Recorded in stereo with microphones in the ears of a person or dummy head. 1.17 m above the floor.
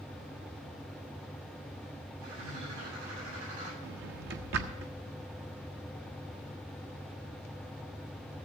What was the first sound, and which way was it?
A bird, 90° right.